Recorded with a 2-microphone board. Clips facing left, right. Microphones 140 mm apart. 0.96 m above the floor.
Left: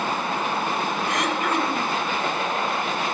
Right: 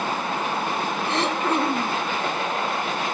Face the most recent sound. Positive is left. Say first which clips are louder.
# right 3 dB
turn(degrees=-30)  # may be behind; listen again after turning